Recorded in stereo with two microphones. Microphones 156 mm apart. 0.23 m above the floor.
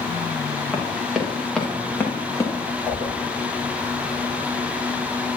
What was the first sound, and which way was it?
Running footsteps, 5° right (ahead or behind).